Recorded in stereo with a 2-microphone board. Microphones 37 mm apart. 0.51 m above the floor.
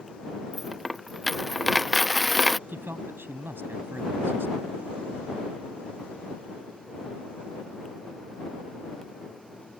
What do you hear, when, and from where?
0.5 s a dropped coin: centre (ahead or behind)
2.7 s a man speaking: 75° right (ahead or behind)